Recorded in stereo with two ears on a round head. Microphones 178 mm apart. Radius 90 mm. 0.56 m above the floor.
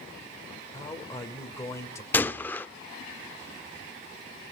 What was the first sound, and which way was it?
A man speaking, 15° left (ahead or behind).